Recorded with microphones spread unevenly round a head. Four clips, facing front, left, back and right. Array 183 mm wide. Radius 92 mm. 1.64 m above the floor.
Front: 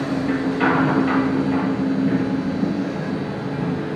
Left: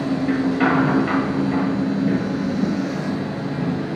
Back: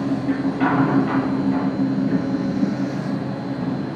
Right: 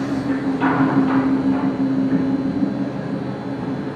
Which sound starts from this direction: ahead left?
A machine running, at 0.0 s.